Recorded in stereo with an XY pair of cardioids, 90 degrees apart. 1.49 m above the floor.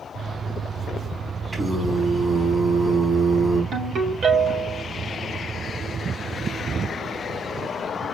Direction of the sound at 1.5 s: 15° right.